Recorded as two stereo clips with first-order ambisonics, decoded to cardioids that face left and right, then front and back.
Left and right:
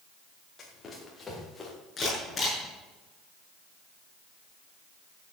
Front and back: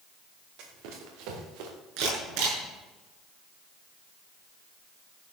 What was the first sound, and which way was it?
Running footsteps, 160° left.